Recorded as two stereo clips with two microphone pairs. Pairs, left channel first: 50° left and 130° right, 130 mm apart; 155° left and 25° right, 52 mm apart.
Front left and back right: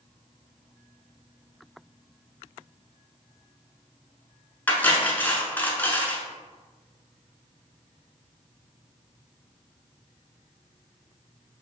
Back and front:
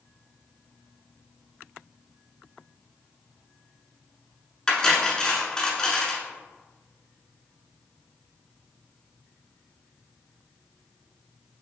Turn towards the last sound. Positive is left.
turn(degrees=100)